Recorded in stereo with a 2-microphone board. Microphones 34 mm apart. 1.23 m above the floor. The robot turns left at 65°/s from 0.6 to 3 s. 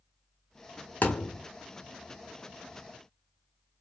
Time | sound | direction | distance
1.0 | a thud | 50° left (ahead or behind) | 1.0 m